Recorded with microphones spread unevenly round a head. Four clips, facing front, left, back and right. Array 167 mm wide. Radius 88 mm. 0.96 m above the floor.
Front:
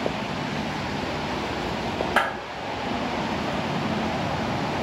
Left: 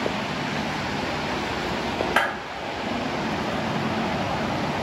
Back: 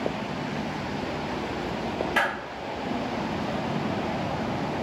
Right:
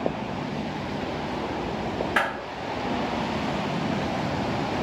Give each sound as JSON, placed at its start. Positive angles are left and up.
{"t": 2.2, "sound": "a clap", "azimuth_deg": 35, "distance_m": 2.0}